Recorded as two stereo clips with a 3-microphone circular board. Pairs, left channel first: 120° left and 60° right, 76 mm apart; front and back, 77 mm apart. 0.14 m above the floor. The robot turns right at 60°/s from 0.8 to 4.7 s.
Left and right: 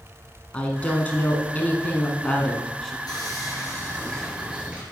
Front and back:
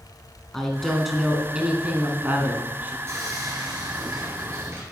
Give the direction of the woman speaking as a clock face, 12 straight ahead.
9 o'clock.